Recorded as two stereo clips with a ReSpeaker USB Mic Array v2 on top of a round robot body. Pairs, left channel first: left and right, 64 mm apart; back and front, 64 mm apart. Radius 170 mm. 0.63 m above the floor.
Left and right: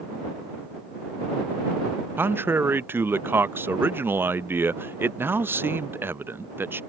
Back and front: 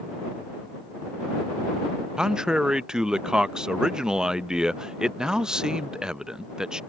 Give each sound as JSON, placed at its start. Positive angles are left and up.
{"t": 2.2, "sound": "a man speaking", "azimuth_deg": -70}